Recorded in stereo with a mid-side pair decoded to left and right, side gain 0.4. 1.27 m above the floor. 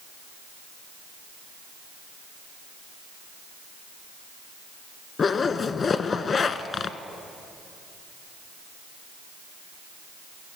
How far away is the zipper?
About 1.2 m.